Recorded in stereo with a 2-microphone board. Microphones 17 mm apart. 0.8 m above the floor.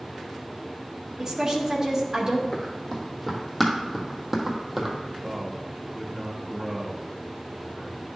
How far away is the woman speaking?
About 1.5 m.